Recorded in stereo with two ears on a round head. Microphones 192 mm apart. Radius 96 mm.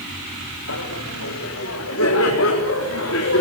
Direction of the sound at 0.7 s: 70° left (ahead or behind).